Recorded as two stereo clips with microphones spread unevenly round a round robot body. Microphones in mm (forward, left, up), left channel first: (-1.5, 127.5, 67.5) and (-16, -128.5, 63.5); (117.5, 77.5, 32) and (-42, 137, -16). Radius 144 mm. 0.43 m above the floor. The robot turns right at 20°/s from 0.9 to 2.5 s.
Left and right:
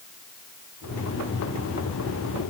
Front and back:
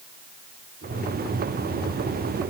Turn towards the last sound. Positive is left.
No sound to turn to.